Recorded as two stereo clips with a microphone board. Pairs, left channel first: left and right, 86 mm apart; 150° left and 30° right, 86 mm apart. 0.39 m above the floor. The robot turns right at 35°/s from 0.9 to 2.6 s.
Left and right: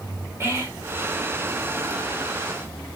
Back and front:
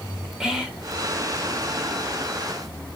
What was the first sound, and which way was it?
Whispering, 105° right.